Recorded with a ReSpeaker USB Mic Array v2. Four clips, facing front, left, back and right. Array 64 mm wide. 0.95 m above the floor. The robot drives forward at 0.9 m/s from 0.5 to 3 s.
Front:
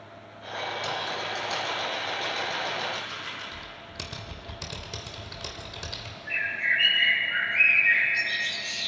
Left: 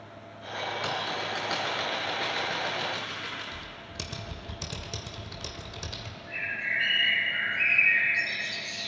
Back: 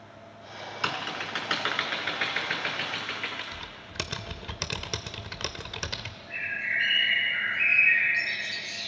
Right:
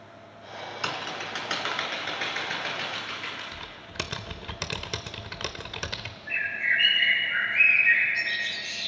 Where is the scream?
I don't hear a scream.